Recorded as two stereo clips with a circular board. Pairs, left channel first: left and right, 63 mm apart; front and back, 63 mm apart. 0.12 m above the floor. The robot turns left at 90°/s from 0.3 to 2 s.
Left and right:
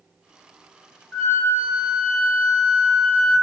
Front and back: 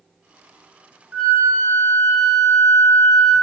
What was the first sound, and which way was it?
A flute, 160° left.